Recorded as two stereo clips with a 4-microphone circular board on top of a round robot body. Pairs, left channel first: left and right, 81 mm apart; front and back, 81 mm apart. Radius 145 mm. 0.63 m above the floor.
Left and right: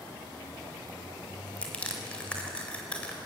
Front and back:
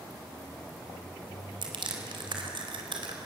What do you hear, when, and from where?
1.6 s crushing: 165° left, 4 m